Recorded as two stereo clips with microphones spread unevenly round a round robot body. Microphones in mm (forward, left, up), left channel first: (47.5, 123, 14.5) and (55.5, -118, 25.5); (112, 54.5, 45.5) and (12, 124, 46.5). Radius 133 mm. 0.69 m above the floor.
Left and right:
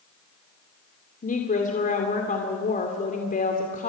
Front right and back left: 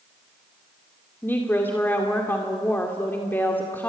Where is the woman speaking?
40° left, 2.5 m.